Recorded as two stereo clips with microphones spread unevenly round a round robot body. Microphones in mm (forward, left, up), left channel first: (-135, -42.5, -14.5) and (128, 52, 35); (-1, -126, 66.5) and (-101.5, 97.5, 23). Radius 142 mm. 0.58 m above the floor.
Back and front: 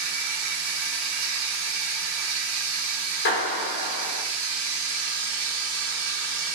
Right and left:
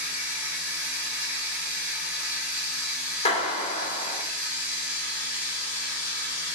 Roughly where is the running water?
Ahead left.